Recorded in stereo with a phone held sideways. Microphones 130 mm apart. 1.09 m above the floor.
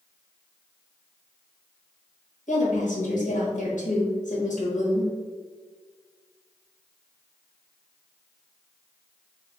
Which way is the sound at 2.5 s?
75° left (ahead or behind).